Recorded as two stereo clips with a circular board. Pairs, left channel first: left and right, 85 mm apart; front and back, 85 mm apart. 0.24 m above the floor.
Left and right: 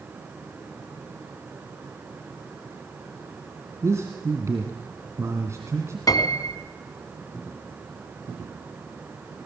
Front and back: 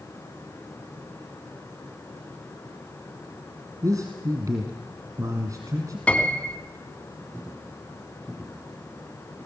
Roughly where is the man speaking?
Behind right.